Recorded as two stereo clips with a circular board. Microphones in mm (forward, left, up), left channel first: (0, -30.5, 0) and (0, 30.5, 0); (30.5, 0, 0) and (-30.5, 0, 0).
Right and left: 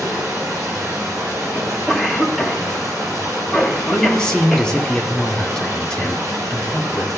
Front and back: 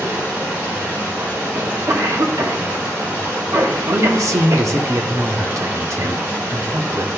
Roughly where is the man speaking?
Behind.